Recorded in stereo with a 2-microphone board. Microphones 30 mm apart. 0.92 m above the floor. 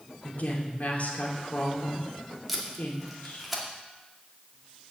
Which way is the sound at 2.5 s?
5° right (ahead or behind).